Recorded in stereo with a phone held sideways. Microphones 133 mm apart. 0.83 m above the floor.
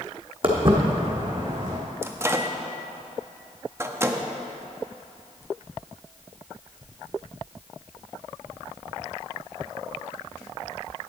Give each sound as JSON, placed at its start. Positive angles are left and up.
{"t": 0.4, "sound": "footsteps", "side_deg": -40, "distance_m": 1.8}
{"t": 2.0, "sound": "a microwave", "side_deg": -20, "distance_m": 0.6}